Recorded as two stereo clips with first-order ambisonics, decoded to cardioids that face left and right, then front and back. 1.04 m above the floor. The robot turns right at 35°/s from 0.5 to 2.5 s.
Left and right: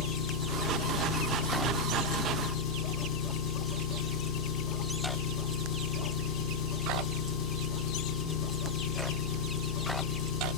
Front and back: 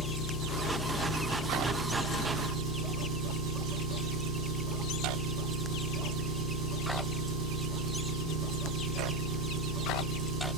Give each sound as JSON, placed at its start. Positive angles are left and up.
{"t": 0.0, "sound": "an engine running", "azimuth_deg": 60, "distance_m": 5.5}